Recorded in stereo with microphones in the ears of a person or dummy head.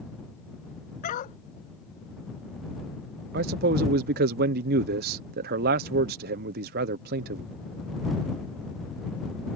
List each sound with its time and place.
1.0 s a dog barking: 50° left (ahead or behind)
3.3 s a man speaking: 55° right (ahead or behind)